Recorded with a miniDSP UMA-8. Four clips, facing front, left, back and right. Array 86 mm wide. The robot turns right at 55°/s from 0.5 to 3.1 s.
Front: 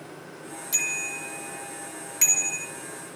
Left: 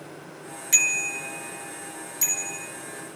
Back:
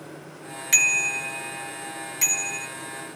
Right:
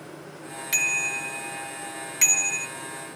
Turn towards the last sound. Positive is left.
turn(degrees=-35)